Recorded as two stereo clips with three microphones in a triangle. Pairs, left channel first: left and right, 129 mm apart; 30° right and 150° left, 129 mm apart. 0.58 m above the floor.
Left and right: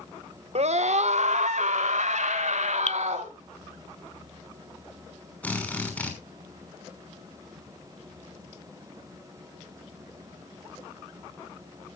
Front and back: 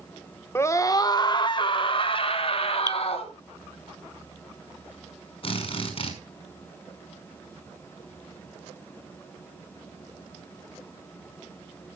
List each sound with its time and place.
0.6 s a scream: 95° right, 1.4 m; by 3.3 s 70° right, 4 m
2.9 s dripping: 90° left, 0.7 m
5.4 s a drill: 10° left, 5.5 m